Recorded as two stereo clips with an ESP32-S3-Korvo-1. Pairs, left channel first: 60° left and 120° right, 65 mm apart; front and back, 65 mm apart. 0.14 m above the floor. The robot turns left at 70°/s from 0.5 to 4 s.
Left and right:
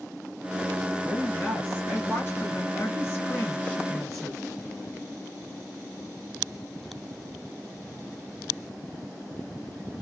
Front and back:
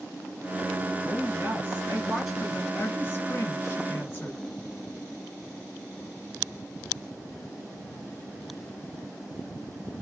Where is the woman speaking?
Straight behind, 1.6 m; by 4.4 s 25° right, 1.6 m.